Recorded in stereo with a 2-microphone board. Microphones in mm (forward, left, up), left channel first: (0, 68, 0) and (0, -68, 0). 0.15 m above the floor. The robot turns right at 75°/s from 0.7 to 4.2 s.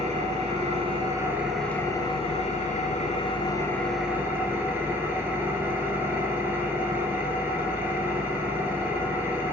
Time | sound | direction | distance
0.0 | an engine running | 65° right | 0.7 m